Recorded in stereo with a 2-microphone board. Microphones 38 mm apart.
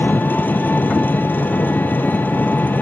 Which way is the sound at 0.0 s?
60° left (ahead or behind).